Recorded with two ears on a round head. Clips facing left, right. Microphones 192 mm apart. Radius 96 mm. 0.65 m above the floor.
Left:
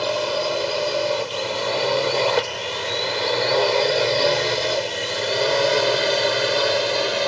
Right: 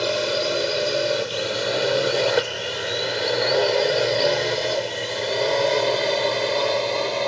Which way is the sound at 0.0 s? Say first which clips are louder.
Even; 20° right (ahead or behind).